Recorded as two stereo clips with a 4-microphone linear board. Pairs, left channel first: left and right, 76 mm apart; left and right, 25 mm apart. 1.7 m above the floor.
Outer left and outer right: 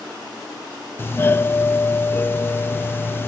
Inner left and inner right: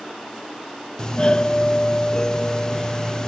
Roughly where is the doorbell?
Left.